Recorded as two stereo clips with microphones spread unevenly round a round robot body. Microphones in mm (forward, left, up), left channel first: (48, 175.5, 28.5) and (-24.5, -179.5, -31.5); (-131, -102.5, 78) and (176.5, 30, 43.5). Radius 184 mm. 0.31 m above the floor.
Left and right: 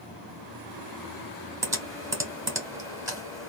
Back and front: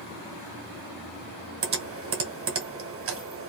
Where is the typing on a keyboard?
25° right, 1.4 m.